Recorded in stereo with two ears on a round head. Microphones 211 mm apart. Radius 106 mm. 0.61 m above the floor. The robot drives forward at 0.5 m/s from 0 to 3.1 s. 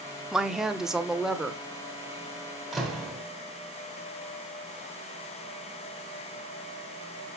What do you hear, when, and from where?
0.3 s a woman speaking: centre (ahead or behind), 0.9 m
2.7 s a door slam: centre (ahead or behind), 2.5 m